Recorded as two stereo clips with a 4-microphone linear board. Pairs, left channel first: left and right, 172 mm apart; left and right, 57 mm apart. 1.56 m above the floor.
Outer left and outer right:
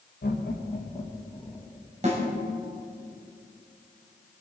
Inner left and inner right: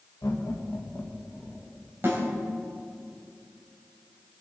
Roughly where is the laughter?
Left.